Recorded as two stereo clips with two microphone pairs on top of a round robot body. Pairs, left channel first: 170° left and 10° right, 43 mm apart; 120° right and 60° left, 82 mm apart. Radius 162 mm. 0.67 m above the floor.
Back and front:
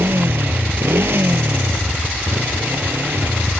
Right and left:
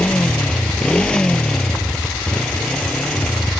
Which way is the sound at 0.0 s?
45° right.